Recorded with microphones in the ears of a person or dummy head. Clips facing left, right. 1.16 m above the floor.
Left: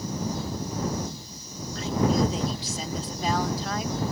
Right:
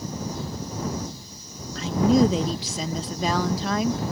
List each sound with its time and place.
1.8 s a woman speaking: 55° right (ahead or behind)